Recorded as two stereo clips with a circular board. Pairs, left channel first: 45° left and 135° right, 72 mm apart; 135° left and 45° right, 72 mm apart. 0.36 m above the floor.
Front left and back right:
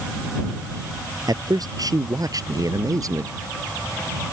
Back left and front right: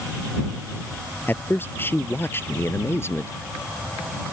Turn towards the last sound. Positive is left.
turn(degrees=-170)